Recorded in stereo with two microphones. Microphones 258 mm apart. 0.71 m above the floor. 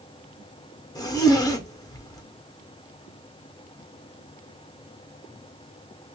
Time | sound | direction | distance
0.9 | a zipper | 15° left (ahead or behind) | 0.6 m